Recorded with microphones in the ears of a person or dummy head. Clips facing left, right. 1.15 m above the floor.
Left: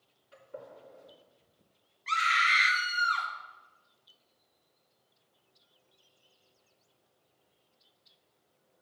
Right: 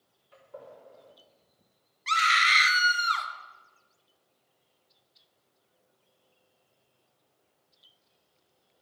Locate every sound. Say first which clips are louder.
0.3 s a gunshot: even; 15° left (ahead or behind), 3 m
2.1 s a scream: right 3 dB; 55° right (ahead or behind), 1.2 m